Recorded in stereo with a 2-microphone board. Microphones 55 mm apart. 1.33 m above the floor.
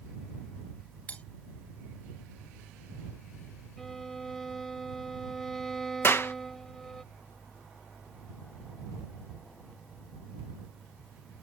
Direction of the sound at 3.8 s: 5° left (ahead or behind).